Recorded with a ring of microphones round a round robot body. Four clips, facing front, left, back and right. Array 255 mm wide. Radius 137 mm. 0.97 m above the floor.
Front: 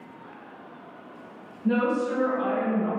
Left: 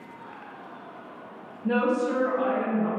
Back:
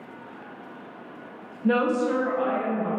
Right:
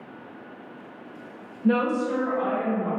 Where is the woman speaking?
145° right, 0.6 m; by 2.9 s 125° left, 1.0 m.